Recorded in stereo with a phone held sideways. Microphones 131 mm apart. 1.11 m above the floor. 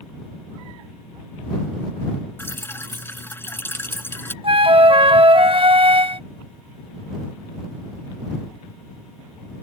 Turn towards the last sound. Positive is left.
turn(degrees=-45)  # may be behind; listen again after turning